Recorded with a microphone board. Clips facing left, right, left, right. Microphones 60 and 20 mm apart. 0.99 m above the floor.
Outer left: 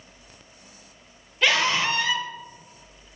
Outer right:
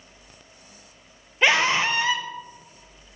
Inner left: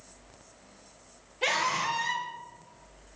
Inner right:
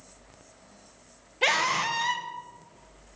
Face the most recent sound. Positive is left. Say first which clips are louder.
# outer right 2 dB, inner right 3 dB
turn(degrees=-25)  # may be behind; listen again after turning